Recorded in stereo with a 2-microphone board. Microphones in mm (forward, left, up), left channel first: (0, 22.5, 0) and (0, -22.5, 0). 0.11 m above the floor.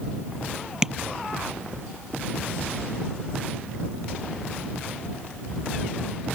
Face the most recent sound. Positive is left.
turn(degrees=-20)  # may be behind; listen again after turning